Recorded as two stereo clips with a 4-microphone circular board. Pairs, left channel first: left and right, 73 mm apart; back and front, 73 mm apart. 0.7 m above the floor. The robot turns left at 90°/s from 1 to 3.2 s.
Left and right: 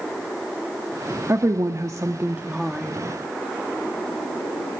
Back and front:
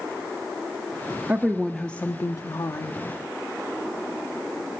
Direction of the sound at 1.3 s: 55° right.